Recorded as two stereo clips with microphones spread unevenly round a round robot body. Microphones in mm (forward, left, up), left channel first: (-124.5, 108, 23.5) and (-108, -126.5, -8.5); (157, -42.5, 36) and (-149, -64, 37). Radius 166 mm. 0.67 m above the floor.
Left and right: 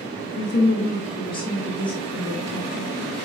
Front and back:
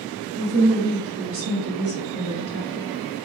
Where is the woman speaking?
125° left, 1.1 m; by 2.9 s 145° right, 1.3 m.